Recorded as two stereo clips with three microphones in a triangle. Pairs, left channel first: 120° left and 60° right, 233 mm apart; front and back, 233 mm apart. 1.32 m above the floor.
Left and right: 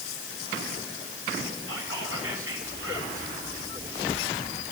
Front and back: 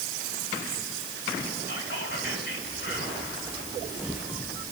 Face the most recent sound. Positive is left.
turn(degrees=-45)